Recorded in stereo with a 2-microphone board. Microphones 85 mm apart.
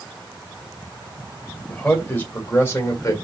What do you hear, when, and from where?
1.7 s a man speaking: 15° left (ahead or behind), 2 m; by 3.1 s 35° left (ahead or behind), 1.7 m